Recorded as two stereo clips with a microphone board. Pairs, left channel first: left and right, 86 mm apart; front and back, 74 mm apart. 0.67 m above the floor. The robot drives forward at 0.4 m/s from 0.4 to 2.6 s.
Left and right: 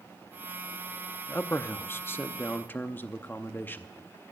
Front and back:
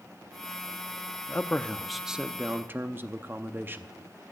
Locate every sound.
1.3 s a man speaking: 40° left, 0.6 m; by 4.0 s 140° left, 0.6 m